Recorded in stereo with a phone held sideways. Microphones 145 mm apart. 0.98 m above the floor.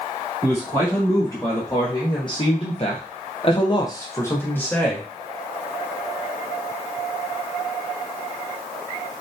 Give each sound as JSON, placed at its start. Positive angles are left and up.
{"t": 0.4, "sound": "a man speaking", "side_deg": 15, "distance_m": 1.8}